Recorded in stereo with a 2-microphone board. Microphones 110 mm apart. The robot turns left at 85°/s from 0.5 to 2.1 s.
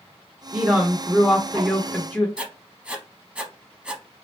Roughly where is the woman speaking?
Centre.